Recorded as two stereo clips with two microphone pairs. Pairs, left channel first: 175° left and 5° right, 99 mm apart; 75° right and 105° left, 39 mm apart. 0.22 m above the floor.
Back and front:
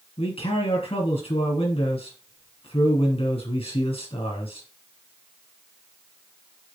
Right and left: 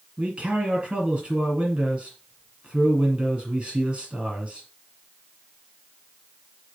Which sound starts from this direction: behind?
A man speaking, at 0.2 s.